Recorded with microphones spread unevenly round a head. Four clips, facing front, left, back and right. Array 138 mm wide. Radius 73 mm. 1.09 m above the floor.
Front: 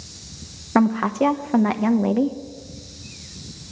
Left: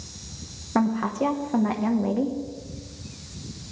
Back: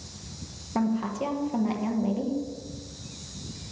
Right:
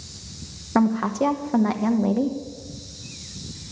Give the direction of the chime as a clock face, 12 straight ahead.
I don't hear a chime.